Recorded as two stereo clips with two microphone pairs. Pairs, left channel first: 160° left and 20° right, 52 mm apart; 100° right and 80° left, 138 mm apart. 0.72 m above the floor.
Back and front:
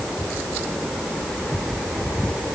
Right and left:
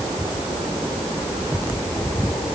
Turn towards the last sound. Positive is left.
No sound to turn to.